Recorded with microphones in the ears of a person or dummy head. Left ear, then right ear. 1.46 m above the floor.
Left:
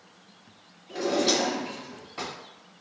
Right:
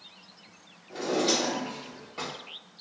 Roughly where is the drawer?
Centre.